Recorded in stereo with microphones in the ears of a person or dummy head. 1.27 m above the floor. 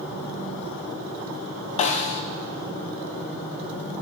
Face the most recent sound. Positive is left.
turn(degrees=40)  # may be behind; listen again after turning